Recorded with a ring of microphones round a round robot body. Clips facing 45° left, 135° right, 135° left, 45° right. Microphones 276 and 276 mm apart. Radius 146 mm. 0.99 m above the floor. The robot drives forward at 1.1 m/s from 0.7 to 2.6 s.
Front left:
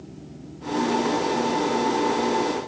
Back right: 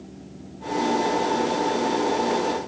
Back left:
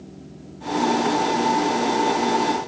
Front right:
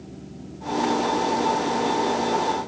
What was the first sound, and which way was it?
Only background noise.